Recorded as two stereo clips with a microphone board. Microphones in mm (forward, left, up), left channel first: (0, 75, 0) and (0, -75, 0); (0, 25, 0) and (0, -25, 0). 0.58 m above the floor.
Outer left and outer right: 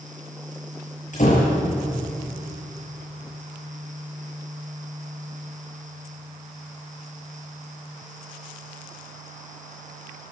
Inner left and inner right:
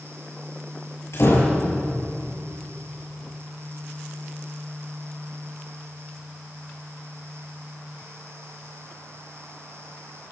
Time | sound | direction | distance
1.1 | a door slam | 60° left (ahead or behind) | 7.5 m